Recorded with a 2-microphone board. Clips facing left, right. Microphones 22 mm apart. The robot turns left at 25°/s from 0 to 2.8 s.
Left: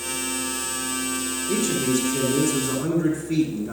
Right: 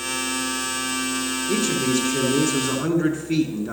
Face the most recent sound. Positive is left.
turn(degrees=-85)